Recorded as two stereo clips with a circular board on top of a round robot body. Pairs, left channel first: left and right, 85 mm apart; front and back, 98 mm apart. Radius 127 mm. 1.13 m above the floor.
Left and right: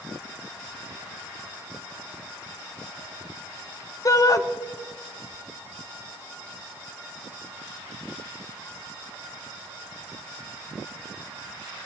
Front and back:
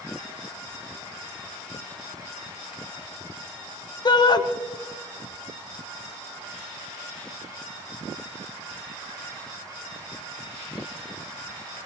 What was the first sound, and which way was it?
A shout, 45° left.